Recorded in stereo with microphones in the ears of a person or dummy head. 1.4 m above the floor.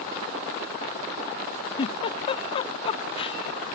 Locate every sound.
1.8 s a giggle: 35° left (ahead or behind)